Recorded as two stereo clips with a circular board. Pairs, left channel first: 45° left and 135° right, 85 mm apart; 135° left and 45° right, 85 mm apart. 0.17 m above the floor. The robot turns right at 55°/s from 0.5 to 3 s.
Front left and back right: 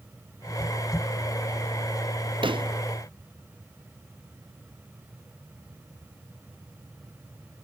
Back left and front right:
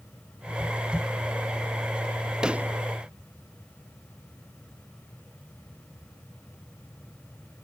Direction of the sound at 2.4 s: 125° right.